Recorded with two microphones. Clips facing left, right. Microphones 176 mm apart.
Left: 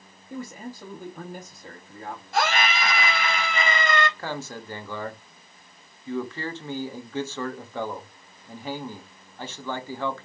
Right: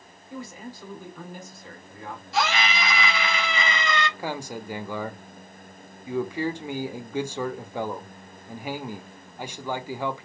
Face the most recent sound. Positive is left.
turn(degrees=-15)  # may be behind; listen again after turning